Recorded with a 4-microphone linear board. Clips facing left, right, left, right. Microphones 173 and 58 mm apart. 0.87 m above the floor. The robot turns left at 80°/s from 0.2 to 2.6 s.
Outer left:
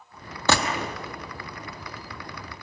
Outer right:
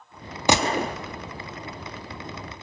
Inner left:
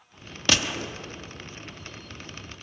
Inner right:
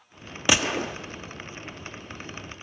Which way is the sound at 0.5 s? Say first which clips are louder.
Outer right 3 dB, inner right 3 dB; 15° right.